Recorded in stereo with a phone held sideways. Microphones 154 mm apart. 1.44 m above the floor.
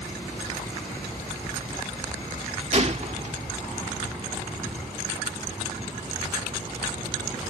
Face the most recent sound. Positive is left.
turn(degrees=-50)  # may be behind; listen again after turning